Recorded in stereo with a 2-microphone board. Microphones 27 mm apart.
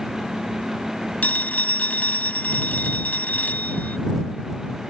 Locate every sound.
1.2 s a phone ringing: 80° left